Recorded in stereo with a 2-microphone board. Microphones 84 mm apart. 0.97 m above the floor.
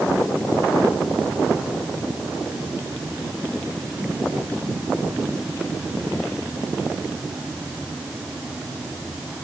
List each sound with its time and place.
Only background noise.